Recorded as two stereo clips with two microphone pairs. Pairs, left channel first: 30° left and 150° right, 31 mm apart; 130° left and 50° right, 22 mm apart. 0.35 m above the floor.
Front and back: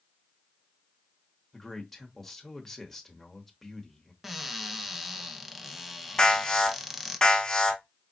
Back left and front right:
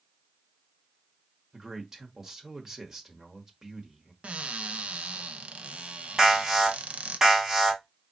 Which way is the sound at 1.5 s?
40° right.